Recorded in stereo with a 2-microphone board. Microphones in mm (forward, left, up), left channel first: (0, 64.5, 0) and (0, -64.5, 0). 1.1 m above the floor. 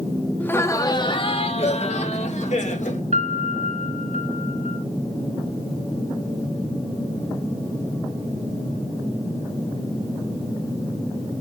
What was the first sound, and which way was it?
Laughter, 10° left (ahead or behind).